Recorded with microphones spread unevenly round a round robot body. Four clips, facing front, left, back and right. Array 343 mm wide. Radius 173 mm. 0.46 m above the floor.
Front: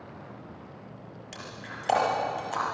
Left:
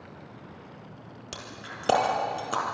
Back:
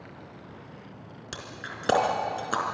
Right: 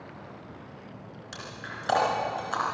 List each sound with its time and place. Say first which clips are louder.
1.3 s breaking glass: right 1 dB, back 2 dB; 150° left, 4 m